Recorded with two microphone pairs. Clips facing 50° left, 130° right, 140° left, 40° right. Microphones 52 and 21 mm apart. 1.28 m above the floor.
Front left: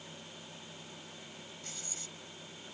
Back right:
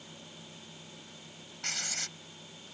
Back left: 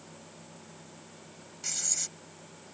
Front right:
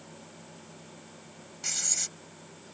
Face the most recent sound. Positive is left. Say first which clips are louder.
# back right 9 dB, front right 2 dB
turn(degrees=-110)